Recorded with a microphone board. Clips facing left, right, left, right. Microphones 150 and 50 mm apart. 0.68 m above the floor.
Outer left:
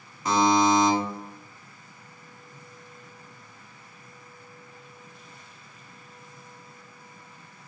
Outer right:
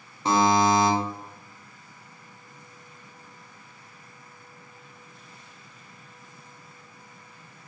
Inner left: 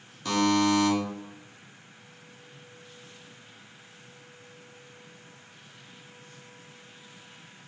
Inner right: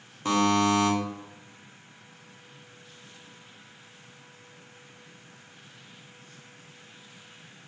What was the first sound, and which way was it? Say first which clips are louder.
A buzzer: even, inner right 1 dB; 30° right (ahead or behind).